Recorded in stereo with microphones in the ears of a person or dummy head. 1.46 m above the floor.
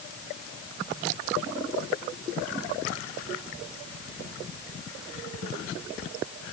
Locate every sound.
Only background noise.